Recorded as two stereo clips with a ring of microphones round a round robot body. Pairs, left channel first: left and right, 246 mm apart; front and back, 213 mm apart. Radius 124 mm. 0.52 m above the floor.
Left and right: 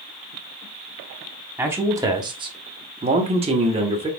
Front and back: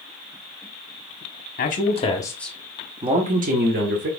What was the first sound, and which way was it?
A man speaking, 10° right.